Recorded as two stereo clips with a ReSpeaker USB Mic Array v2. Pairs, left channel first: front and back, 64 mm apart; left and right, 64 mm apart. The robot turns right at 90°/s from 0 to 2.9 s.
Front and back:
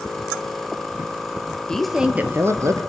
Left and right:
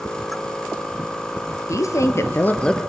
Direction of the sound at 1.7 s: 75° left.